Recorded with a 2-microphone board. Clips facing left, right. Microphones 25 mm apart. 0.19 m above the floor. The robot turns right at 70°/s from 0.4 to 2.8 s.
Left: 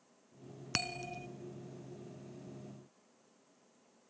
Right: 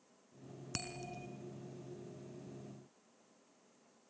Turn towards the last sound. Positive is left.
turn(degrees=-90)